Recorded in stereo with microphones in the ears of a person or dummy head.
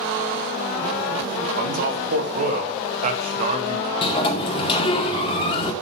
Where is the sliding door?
35° left (ahead or behind), 1.9 m.